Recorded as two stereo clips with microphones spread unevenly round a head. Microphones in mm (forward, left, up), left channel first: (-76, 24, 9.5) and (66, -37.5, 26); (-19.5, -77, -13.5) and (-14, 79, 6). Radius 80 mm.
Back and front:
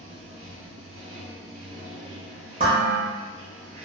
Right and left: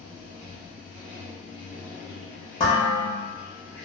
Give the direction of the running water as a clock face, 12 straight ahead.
11 o'clock.